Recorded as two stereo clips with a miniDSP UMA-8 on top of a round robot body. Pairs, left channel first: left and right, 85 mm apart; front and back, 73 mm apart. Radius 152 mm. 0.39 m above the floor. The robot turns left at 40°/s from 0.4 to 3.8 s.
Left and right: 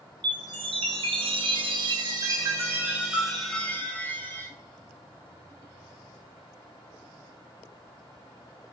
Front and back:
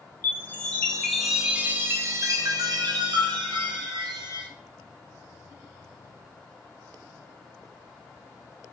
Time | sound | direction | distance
0.2 | a chime | 60° right | 0.7 m